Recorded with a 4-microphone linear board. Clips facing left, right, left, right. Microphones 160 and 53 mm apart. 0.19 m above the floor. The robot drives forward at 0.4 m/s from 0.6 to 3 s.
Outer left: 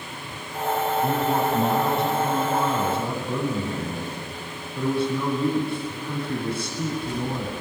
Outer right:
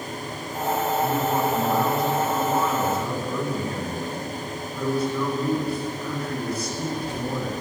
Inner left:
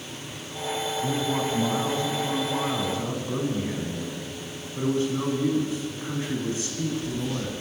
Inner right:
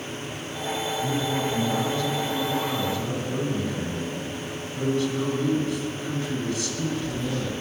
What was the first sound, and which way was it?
A man speaking, 25° left (ahead or behind).